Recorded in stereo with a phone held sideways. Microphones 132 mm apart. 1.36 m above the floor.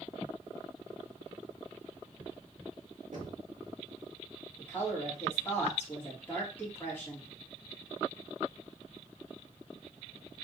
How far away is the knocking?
About 1.7 m.